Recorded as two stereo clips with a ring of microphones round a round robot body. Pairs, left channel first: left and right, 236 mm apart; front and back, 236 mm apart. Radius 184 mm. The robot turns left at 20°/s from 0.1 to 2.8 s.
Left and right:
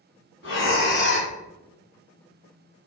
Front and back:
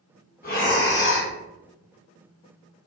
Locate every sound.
0.4 s breathing: 55° left, 1.5 m; by 1.3 s 35° left, 1.5 m